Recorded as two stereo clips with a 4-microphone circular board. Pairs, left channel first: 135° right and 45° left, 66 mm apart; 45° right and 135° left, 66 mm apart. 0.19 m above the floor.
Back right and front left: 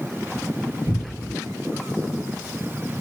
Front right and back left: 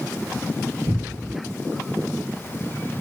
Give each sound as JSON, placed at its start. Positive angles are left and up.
{"t": 0.9, "sound": "a cupboard door", "azimuth_deg": 25, "distance_m": 1.8}